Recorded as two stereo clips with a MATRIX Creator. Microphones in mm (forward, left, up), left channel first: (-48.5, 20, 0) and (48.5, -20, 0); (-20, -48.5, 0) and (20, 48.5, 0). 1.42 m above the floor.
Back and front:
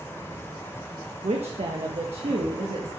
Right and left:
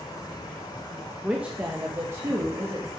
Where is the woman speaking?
15° right, 1.1 m; by 2.9 s 10° left, 2.0 m.